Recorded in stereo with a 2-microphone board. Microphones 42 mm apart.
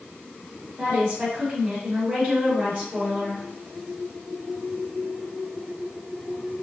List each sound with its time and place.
0.8 s a woman speaking: 25° right (ahead or behind), 1.2 m